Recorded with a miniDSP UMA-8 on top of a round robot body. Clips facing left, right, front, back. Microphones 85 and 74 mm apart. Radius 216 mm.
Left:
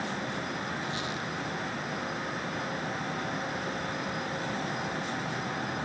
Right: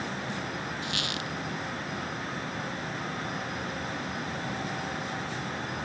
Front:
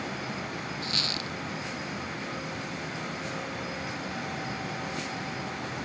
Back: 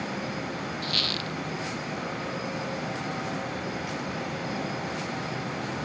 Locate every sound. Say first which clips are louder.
0.8 s a squeak: even, back 2 dB; 70° right